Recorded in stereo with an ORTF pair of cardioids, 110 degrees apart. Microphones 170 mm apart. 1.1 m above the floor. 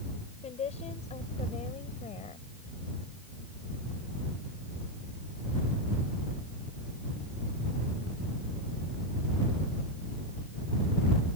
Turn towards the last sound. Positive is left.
turn(degrees=45)